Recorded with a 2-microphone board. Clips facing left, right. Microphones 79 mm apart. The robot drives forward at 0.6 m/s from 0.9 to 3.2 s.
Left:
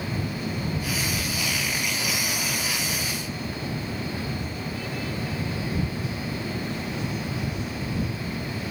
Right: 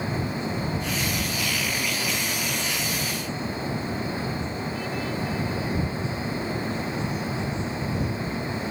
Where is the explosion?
No explosion in this recording.